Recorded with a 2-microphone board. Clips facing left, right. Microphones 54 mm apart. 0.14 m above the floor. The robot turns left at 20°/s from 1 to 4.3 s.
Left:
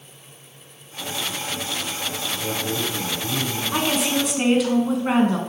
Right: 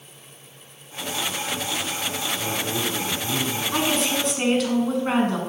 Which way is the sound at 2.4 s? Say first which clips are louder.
Left 2 dB; 10° right (ahead or behind).